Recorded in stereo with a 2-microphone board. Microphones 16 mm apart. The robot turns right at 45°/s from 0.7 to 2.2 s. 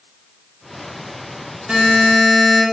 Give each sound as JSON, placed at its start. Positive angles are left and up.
{"t": 1.7, "sound": "a buzzer", "side_deg": -60, "distance_m": 1.4}